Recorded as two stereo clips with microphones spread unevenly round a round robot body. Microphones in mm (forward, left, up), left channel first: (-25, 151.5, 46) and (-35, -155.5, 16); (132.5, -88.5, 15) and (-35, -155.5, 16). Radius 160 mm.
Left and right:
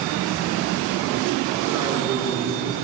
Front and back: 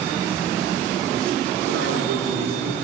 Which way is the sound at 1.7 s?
170° right.